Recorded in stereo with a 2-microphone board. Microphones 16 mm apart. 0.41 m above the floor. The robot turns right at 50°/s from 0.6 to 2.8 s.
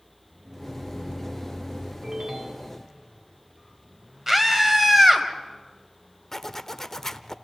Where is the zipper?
25° left (ahead or behind), 0.7 m.